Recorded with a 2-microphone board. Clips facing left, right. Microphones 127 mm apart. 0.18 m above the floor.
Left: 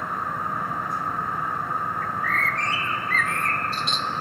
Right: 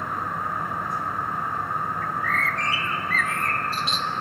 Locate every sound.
2.0 s a bird: centre (ahead or behind), 1.2 m